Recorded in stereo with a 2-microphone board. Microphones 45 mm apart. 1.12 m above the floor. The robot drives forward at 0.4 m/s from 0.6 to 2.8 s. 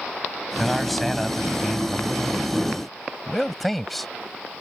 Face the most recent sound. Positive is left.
turn(degrees=5)  # may be behind; listen again after turning